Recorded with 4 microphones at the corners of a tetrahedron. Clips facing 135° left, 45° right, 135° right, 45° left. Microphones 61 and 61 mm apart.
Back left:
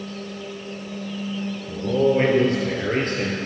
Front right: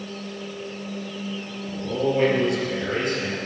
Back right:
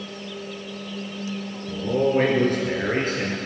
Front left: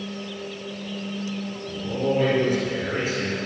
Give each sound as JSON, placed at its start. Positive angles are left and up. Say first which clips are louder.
{"t": 1.7, "sound": "a man speaking", "louder": "back left 5 dB, back right 4 dB", "azimuth_deg": -165, "distance_m": 4.0}